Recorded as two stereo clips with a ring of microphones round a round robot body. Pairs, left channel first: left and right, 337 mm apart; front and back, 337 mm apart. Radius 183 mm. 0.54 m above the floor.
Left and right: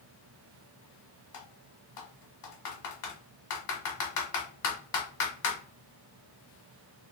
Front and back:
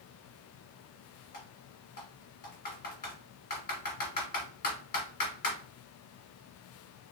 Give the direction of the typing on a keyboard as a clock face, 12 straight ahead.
10 o'clock.